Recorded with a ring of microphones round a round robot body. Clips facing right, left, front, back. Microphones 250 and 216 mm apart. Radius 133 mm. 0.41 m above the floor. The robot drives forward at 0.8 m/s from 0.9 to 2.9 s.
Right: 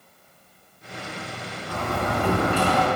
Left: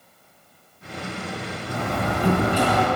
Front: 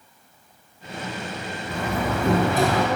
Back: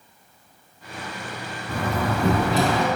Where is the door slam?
165° left, 3 m.